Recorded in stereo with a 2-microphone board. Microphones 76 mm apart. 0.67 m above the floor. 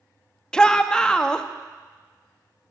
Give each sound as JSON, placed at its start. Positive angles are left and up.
{"t": 0.5, "sound": "a shout", "side_deg": 10, "distance_m": 0.6}